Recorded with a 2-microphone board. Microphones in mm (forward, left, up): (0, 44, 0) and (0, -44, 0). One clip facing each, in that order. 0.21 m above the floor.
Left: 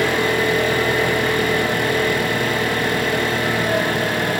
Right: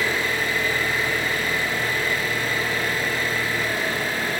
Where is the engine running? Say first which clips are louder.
Left 6 dB; 65° left (ahead or behind), 3.5 m.